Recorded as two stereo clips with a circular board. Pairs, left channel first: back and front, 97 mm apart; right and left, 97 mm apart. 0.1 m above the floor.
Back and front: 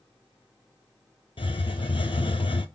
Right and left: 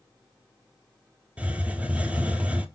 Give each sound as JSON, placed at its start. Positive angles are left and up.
{"t": 1.4, "sound": "a hiss", "azimuth_deg": 165, "distance_m": 0.6}